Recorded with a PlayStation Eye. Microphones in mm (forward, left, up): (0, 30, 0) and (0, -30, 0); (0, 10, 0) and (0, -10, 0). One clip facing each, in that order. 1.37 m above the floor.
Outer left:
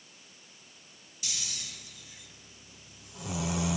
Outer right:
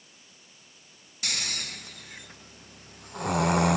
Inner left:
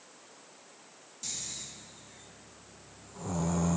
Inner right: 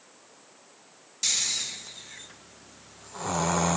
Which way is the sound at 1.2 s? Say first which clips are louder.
Outer right 8 dB, inner right 13 dB; 55° right (ahead or behind).